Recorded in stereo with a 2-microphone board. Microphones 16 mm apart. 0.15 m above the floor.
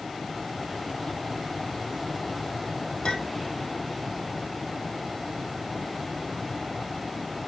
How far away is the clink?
About 3 m.